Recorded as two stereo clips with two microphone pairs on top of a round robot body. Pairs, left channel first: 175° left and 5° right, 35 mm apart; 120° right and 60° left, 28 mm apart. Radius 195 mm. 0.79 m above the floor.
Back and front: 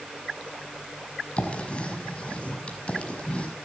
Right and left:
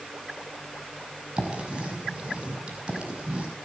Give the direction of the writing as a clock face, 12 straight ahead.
8 o'clock.